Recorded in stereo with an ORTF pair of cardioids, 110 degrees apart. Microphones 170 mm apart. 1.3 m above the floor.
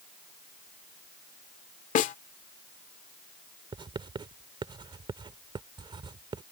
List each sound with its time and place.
1.9 s a snare drum: 55° left
3.7 s writing: 30° right